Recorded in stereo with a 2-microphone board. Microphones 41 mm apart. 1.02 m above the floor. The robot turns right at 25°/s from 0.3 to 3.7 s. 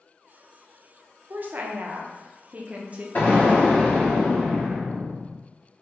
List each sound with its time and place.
1.3 s a woman speaking: 90° right, 0.7 m; by 3.0 s 45° right, 0.7 m
3.1 s an explosion: 55° left (ahead or behind), 1.9 m; by 5.3 s 40° left (ahead or behind), 1.9 m